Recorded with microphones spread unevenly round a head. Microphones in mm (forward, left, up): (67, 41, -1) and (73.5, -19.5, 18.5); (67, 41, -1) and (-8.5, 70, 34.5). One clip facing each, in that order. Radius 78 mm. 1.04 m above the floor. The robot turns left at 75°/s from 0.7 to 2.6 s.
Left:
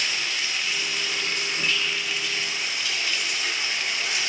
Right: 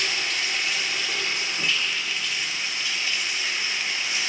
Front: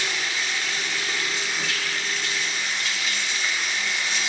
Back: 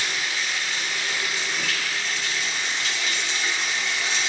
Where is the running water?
65° right, 2.5 m; by 4.3 s 150° left, 2.5 m.